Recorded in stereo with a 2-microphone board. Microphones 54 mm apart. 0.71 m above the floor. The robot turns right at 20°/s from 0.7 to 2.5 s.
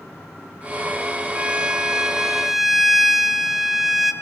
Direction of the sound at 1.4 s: 20° right (ahead or behind).